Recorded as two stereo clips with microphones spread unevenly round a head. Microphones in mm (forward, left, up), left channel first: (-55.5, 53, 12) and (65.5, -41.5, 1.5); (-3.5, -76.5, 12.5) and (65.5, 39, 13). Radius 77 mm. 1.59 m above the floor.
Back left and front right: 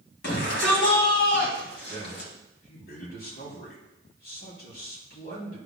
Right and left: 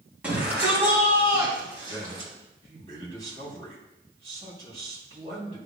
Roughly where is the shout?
Behind left.